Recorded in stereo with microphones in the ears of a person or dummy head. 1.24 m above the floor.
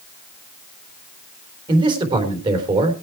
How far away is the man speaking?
About 3.5 m.